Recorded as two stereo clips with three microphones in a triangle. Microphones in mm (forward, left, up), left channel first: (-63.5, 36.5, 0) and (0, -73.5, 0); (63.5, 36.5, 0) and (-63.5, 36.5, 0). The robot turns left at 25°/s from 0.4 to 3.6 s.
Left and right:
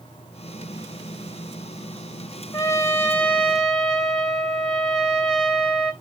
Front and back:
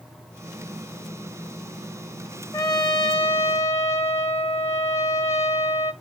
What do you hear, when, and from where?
2.5 s a trumpet: 60° left, 2.5 m; by 5.9 s 35° left, 2.5 m